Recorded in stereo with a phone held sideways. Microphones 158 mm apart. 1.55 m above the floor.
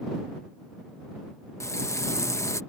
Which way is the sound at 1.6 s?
20° left (ahead or behind).